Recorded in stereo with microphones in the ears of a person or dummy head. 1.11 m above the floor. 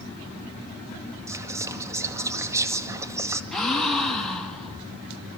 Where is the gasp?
Centre (ahead or behind), 5 m.